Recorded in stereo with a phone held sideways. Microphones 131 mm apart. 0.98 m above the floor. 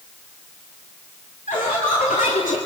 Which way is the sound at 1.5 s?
80° left.